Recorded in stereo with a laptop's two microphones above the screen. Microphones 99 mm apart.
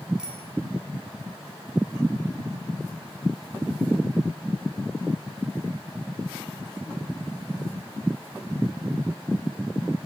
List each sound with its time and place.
0.2 s a bicycle bell: 10° right (ahead or behind), 4.5 m